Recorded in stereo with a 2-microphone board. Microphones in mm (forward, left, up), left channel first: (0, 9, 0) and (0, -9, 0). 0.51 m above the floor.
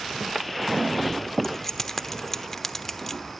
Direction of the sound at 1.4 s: 20° left (ahead or behind).